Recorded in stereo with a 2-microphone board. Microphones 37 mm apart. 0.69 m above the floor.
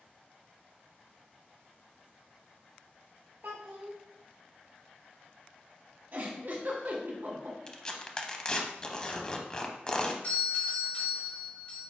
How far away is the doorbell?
About 1.9 m.